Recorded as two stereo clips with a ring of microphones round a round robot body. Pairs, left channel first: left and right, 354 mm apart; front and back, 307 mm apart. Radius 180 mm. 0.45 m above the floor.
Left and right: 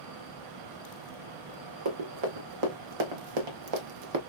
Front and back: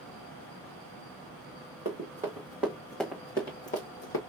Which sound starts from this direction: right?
Running footsteps, at 1.9 s.